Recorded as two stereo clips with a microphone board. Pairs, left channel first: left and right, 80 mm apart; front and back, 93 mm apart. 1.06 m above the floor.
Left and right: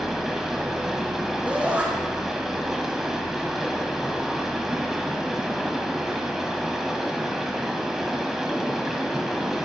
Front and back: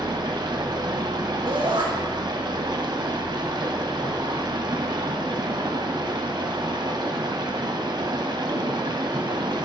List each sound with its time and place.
0.0 s running water: 175° right, 1.3 m
1.5 s a shout: 160° right, 4 m